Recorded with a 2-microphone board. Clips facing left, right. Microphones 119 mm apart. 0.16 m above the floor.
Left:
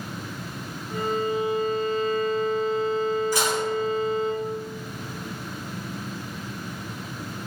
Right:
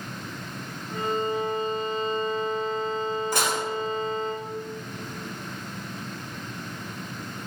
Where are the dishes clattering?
60° right (ahead or behind), 3 m.